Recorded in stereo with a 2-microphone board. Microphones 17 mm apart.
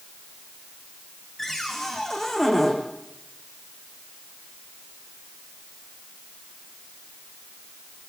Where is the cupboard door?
15° left (ahead or behind), 5 m.